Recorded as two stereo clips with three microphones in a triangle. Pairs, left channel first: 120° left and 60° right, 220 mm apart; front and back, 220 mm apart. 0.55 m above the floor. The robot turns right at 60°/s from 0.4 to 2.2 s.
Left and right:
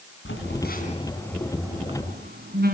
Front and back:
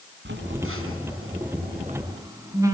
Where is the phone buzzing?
145° left, 4 m; by 2.7 s 105° right, 4 m.